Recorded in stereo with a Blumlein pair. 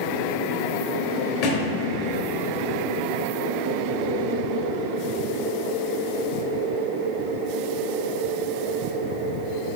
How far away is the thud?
About 1.9 m.